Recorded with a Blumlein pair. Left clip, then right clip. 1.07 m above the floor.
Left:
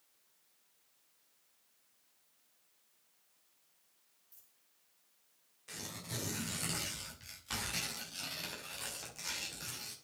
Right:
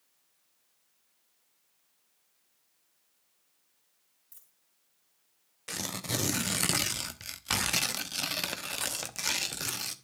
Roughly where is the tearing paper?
Ahead right.